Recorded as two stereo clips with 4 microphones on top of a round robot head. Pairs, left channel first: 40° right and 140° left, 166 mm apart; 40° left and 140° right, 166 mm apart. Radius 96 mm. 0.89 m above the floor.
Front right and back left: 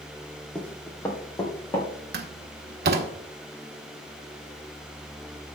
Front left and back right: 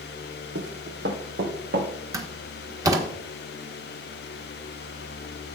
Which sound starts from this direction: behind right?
Running footsteps, at 0.6 s.